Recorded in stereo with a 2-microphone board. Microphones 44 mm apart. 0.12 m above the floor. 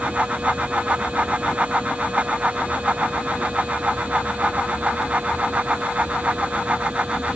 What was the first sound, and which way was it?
Only background noise.